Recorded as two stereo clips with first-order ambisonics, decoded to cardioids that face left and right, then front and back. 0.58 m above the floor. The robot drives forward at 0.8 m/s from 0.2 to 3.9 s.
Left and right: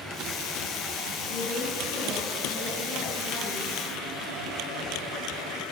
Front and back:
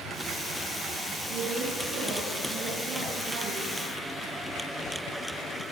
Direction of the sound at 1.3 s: 135° left.